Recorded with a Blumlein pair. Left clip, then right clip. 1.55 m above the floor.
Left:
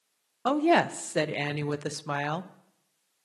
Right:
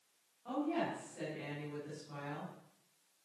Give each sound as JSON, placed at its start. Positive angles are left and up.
{"t": 0.5, "sound": "a woman speaking", "azimuth_deg": 45, "distance_m": 0.7}